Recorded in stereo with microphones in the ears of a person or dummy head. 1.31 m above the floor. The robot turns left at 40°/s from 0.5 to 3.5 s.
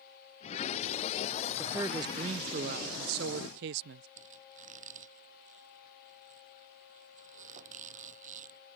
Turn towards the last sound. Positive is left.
turn(degrees=-40)  # may be behind; listen again after turning